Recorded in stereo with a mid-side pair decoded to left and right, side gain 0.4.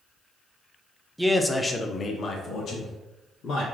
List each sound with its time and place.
1.2 s a man speaking: 5° right, 0.6 m; by 3.6 s 80° left, 1.5 m